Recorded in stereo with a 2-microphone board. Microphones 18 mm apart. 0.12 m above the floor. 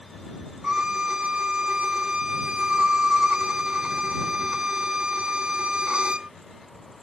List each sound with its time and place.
0.6 s a violin: 75° right (ahead or behind)